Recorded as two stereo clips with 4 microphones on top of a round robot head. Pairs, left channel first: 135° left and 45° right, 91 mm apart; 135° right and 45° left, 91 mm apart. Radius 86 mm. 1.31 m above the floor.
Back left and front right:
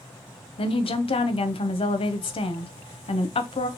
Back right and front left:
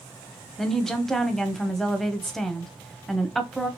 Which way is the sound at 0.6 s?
135° left.